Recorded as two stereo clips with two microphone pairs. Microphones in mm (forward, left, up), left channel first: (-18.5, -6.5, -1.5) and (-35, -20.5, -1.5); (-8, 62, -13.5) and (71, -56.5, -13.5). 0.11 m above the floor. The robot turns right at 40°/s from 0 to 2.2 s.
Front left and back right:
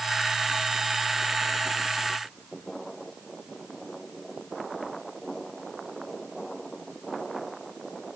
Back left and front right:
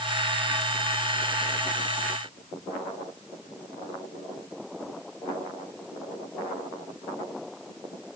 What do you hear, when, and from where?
Only background noise.